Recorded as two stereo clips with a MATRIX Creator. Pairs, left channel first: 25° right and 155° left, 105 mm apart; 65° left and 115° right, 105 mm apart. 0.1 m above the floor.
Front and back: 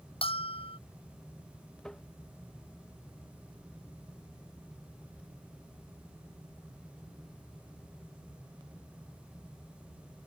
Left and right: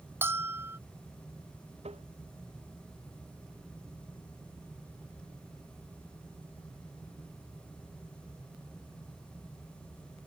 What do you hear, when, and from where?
0.2 s a bell: 45° right
1.8 s tapping: 105° right